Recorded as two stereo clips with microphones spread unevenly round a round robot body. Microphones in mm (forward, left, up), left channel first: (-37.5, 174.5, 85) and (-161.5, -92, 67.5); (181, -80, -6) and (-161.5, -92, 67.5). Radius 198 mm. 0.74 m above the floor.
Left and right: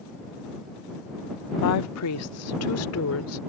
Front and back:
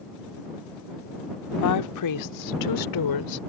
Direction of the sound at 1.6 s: 35° left.